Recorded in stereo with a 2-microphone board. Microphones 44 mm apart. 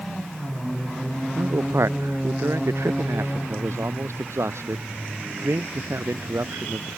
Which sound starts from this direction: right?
A man speaking, at 1.4 s.